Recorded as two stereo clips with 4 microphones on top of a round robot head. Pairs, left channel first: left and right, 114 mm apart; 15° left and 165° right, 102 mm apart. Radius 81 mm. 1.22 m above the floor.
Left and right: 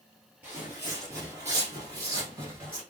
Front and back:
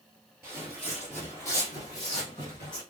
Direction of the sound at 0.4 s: 145° right.